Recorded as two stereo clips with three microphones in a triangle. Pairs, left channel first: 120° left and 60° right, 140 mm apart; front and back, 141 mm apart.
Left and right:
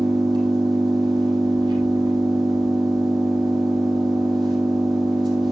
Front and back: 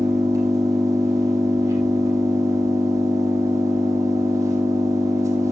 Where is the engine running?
115° right, 5 m.